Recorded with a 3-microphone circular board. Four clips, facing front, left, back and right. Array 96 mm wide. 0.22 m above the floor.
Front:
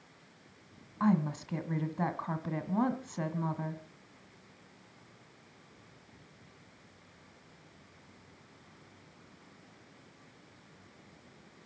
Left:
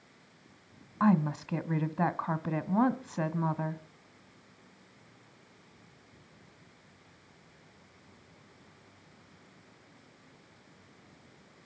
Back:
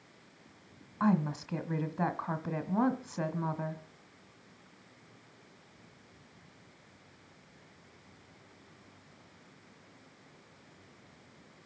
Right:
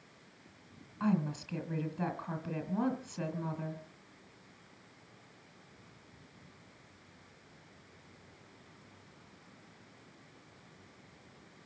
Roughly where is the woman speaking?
Left.